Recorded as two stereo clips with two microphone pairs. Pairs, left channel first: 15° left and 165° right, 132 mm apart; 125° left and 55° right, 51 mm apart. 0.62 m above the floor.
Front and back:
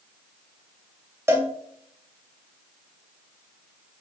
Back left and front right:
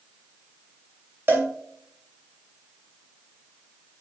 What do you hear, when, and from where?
1.3 s a cowbell: 95° right, 2.5 m